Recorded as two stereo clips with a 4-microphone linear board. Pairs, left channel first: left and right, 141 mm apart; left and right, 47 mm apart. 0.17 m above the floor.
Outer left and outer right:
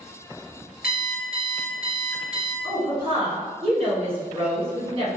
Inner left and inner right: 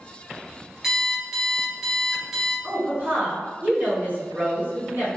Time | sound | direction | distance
0.8 | an alarm clock | 10° right (ahead or behind) | 1.6 m
2.6 | a woman speaking | 45° right (ahead or behind) | 1.8 m